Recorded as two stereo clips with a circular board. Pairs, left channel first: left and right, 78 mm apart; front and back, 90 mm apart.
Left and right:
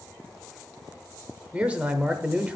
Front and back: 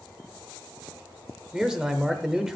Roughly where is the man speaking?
Right.